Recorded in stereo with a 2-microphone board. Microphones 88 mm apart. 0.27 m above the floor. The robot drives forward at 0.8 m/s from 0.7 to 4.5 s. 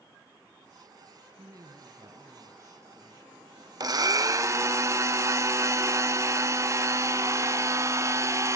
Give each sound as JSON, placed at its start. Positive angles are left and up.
{"t": 1.4, "sound": "a woman speaking", "side_deg": -45, "distance_m": 2.0}
{"t": 3.8, "sound": "a blender", "side_deg": -45, "distance_m": 0.6}